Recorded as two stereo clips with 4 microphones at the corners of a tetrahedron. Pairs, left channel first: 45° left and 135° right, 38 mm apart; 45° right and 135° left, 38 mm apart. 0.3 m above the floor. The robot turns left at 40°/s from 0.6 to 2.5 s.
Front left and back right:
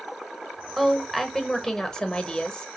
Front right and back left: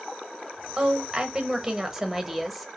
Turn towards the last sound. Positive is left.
turn(degrees=55)